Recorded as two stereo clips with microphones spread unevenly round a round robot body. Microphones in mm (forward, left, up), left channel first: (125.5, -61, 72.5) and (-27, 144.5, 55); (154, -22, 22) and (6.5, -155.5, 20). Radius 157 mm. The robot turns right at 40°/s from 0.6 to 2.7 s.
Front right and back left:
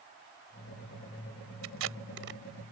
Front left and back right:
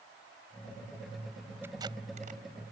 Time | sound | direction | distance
1.6 | tape being pulled | 140° left | ?